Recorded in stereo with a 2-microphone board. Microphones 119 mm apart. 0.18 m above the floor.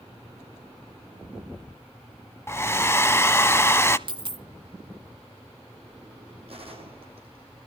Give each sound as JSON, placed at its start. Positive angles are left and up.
{"t": 2.5, "sound": "a hair dryer", "side_deg": 20, "distance_m": 0.5}
{"t": 4.1, "sound": "a dropped coin", "side_deg": -45, "distance_m": 0.6}
{"t": 6.5, "sound": "a gunshot", "side_deg": -50, "distance_m": 4.5}